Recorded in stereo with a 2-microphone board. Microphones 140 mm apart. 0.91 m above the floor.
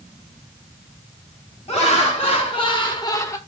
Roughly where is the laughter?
Left.